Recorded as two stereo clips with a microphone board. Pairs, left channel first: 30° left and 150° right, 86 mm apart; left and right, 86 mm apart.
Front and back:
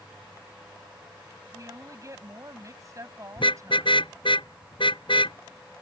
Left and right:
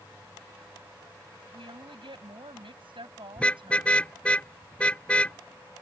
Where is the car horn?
10° left.